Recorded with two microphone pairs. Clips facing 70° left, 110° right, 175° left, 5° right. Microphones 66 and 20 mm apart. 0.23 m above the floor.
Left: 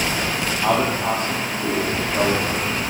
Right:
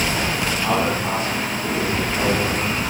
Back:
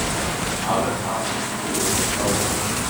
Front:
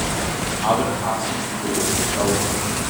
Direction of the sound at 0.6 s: 45° left.